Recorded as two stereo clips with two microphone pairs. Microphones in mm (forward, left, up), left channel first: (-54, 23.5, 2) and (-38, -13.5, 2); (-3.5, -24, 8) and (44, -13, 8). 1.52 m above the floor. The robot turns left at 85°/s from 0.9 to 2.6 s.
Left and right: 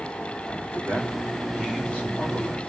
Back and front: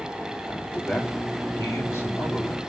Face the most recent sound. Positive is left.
turn(degrees=120)